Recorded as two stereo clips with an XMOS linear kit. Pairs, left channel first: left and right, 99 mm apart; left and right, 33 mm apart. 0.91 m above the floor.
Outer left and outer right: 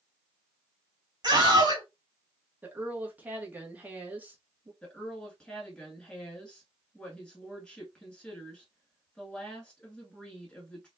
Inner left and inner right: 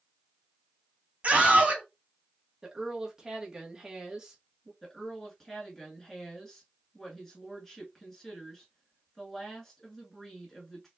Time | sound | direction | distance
1.2 | a scream | 45° right (ahead or behind) | 1.9 m
2.6 | a woman speaking | 15° right (ahead or behind) | 1.1 m
4.8 | a woman speaking | 10° left (ahead or behind) | 1.9 m